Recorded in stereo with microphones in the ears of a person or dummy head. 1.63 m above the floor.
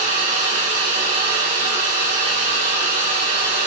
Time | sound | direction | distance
0.0 | a fan | 40° right (ahead or behind) | 1.6 m